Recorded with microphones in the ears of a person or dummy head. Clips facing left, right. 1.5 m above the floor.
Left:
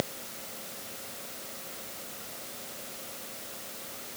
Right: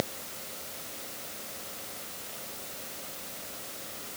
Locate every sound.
Only background noise.